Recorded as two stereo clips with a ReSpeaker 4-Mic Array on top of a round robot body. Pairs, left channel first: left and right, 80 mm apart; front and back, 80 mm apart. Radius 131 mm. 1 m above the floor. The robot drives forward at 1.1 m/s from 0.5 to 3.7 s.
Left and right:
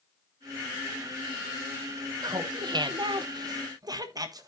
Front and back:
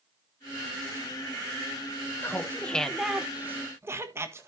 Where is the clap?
No clap in this recording.